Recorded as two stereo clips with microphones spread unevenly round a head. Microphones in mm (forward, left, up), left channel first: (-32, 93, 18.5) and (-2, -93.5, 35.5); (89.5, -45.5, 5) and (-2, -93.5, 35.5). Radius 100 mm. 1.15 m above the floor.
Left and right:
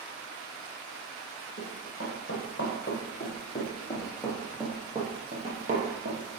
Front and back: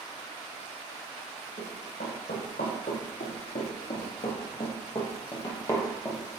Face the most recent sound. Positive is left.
turn(degrees=-60)